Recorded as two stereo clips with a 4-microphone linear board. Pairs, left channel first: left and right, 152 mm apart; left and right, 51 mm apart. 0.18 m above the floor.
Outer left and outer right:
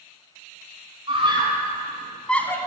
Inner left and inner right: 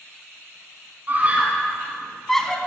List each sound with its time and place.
1.1 s a scream: 40° right (ahead or behind), 1.4 m; by 2.6 s 15° left (ahead or behind), 1.2 m